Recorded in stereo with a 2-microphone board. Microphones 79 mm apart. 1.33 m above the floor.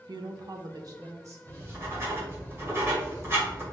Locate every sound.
0.1 s a woman speaking: 60° right (ahead or behind), 0.8 m; by 1.4 s 45° right (ahead or behind), 1.8 m
1.5 s writing: 35° right (ahead or behind), 2 m